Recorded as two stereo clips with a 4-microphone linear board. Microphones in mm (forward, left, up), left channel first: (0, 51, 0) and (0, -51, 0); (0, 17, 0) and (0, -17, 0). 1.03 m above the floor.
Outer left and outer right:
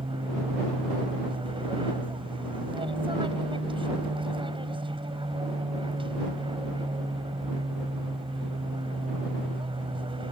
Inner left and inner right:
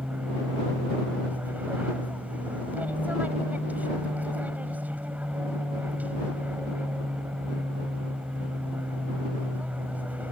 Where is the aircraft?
60° right (ahead or behind).